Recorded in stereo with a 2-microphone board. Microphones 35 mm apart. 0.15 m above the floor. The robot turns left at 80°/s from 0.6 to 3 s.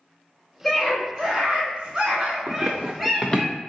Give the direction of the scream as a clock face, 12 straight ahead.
12 o'clock.